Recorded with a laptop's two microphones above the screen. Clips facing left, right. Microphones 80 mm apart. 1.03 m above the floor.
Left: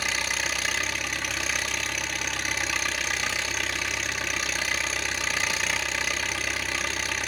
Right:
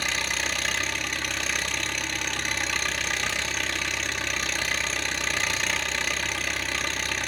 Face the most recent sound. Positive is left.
turn(degrees=5)  # may be behind; listen again after turning